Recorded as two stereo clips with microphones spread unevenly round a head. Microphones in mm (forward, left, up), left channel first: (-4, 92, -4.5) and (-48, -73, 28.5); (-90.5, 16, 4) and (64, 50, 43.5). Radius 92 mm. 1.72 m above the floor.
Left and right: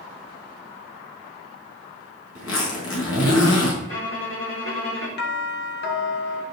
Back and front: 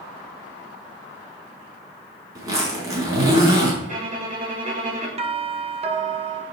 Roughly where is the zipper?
Left.